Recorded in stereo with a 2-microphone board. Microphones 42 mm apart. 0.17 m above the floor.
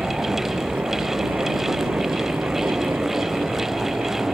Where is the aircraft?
55° right (ahead or behind).